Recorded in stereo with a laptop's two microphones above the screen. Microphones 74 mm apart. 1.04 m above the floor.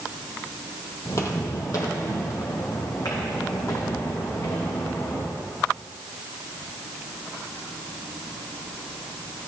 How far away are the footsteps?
About 1.4 m.